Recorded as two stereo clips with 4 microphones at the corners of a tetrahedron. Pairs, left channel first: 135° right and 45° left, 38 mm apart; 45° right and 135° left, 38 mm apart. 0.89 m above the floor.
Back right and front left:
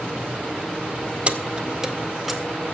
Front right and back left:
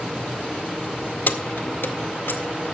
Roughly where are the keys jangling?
Ahead.